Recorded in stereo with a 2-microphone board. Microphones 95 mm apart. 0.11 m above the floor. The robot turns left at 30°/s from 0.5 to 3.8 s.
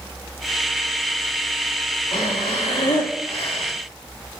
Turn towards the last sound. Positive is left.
turn(degrees=50)